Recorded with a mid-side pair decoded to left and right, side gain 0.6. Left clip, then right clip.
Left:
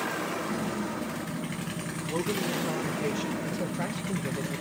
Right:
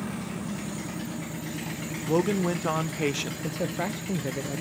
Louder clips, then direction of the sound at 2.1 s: Right 5 dB; 65° right.